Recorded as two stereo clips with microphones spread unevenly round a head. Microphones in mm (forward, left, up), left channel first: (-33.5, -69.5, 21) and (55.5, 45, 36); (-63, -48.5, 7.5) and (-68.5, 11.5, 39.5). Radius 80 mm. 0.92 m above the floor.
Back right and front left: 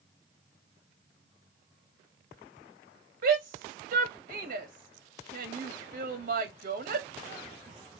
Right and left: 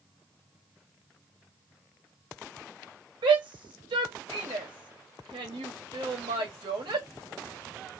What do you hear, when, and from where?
3.2 s a shout: 85° left, 1.7 m